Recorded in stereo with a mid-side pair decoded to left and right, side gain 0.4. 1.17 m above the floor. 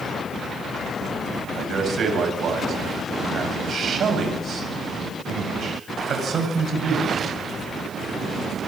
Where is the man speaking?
55° right, 8 m.